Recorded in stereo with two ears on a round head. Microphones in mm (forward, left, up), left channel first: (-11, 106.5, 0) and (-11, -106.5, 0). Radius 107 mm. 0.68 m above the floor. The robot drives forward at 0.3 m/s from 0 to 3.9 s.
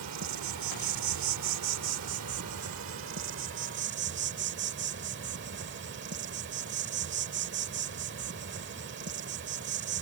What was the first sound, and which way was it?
An insect, 70° right (ahead or behind).